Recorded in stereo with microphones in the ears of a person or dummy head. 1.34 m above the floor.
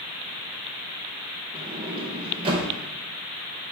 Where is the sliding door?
35° right (ahead or behind), 1.0 m.